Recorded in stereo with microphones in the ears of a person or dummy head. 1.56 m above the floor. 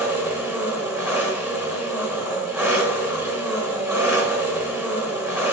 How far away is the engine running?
About 1.5 m.